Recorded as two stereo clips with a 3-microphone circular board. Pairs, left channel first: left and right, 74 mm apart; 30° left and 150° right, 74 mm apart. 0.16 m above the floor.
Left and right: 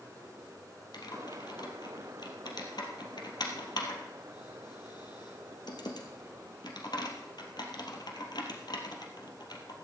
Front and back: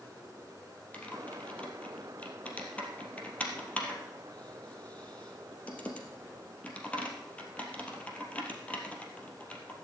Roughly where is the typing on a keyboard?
Left.